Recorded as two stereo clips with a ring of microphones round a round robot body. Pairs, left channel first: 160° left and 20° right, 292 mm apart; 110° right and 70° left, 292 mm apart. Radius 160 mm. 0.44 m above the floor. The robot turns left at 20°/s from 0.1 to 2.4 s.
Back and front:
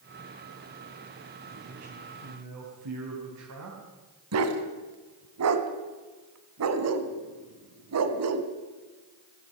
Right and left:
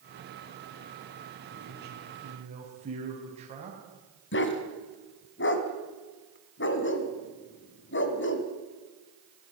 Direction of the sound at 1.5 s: 20° left.